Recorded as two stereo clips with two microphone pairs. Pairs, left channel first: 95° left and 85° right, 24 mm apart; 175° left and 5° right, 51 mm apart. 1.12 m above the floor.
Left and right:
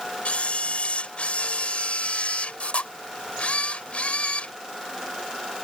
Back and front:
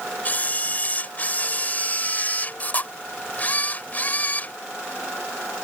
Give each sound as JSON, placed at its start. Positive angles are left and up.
{"t": 0.2, "sound": "a camera shutter", "azimuth_deg": 120}